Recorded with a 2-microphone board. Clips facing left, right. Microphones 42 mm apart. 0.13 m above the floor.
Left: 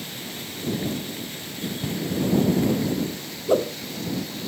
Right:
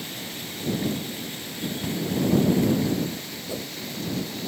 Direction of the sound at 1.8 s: 15° right (ahead or behind).